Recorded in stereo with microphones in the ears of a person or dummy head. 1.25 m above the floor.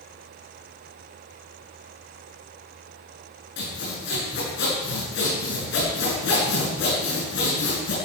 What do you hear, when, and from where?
3.6 s sawing: 60° left (ahead or behind), 6.5 m